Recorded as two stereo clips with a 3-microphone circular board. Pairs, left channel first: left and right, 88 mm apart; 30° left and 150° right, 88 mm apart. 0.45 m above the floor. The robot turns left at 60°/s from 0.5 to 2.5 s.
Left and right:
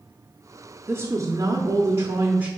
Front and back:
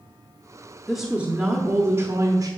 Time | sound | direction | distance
0.9 | a woman speaking | 55° right | 0.8 m